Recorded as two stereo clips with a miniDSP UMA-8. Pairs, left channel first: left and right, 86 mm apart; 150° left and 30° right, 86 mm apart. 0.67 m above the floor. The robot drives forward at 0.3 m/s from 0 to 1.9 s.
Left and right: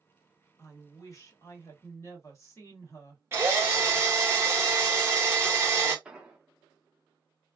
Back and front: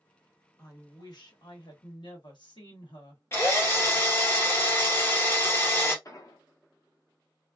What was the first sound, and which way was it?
A woman speaking, 125° left.